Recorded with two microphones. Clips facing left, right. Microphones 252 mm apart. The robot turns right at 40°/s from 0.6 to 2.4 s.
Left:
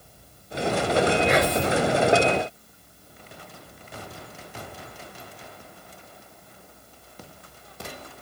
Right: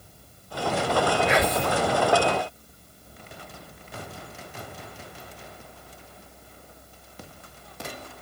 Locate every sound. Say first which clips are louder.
1.3 s whispering: left 2 dB; 40° left (ahead or behind), 2 m; by 1.8 s 25° left (ahead or behind), 2 m